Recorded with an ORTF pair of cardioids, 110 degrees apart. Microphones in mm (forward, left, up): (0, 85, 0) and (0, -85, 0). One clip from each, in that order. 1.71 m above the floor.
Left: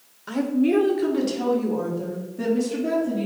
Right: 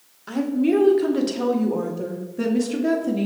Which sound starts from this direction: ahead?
A woman speaking, at 0.3 s.